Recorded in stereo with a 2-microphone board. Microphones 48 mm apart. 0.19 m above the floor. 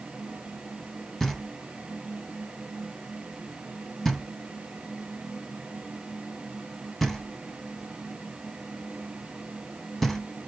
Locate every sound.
1.2 s knocking: 5° left (ahead or behind), 0.9 m